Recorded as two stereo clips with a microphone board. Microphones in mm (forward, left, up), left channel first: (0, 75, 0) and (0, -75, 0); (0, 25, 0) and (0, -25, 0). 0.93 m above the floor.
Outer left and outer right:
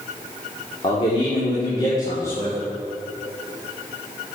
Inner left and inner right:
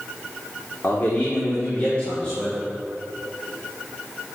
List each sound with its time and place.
0.8 s a man speaking: 45° left (ahead or behind), 2.5 m; by 2.6 s 15° left (ahead or behind), 3.5 m